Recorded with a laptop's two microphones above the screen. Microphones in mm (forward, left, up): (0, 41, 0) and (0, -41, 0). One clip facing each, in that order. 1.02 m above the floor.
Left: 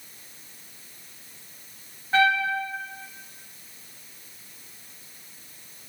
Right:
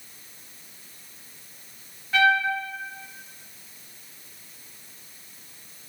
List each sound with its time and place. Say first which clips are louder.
2.1 s a trumpet: right 1 dB; 35° left (ahead or behind), 0.7 m